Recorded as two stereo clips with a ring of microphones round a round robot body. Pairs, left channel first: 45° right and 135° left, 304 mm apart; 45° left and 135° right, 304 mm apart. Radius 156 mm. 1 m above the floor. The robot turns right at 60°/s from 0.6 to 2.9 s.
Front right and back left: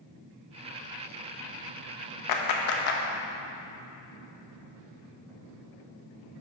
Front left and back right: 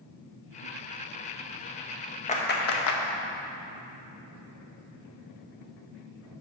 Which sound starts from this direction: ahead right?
A clap, at 2.3 s.